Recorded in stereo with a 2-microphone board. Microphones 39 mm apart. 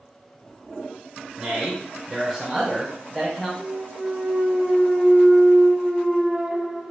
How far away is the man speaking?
About 1.1 m.